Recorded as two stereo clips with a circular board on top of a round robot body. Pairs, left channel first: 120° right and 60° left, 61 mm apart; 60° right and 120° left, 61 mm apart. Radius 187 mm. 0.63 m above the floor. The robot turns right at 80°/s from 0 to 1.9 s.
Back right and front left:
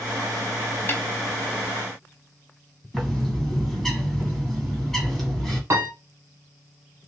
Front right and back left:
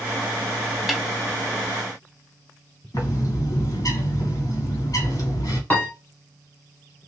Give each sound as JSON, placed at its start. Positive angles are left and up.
{"t": 0.9, "sound": "a snare drum", "azimuth_deg": -155, "distance_m": 1.3}
{"t": 2.9, "sound": "a bird", "azimuth_deg": -35, "distance_m": 2.5}
{"t": 5.7, "sound": "a piano", "azimuth_deg": 5, "distance_m": 1.2}